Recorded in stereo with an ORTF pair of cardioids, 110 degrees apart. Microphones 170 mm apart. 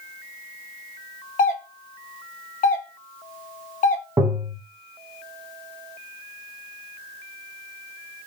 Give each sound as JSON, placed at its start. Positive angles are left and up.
{"t": 1.4, "sound": "a doorbell", "azimuth_deg": 50, "distance_m": 0.8}
{"t": 4.2, "sound": "tapping", "azimuth_deg": -20, "distance_m": 0.9}